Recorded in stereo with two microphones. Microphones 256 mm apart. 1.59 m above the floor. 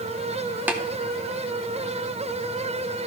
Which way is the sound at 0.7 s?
5° right (ahead or behind).